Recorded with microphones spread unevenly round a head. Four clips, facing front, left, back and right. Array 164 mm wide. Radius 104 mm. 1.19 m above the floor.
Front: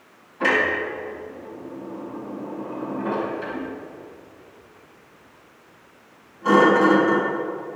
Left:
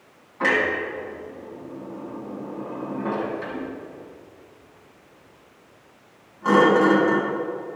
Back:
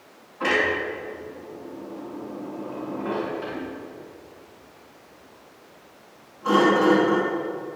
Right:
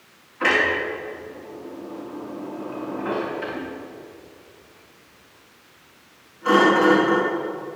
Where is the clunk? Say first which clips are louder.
Right 1 dB, front 2 dB; 60° left, 4.5 m.